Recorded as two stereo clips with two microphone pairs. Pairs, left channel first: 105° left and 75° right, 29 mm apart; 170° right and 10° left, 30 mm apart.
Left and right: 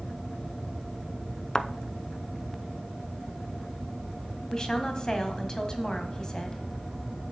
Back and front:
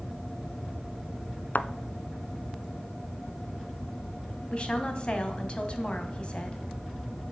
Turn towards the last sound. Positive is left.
turn(degrees=155)